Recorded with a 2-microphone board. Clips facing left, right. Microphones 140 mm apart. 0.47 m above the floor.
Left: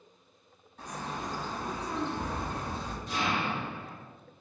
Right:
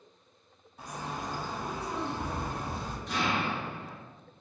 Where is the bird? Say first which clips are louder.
Even; 10° right (ahead or behind), 0.8 m.